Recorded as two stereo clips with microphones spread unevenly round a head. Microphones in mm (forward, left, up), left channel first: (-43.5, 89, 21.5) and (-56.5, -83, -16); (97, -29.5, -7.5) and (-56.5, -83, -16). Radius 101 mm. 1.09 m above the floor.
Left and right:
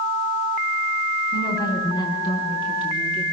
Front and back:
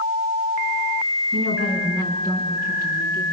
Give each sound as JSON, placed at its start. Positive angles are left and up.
{"t": 1.3, "sound": "a woman speaking", "azimuth_deg": 155, "distance_m": 9.5}